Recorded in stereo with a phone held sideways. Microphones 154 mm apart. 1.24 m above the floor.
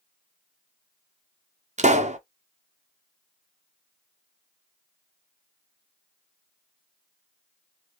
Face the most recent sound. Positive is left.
turn(degrees=-50)  # may be behind; listen again after turning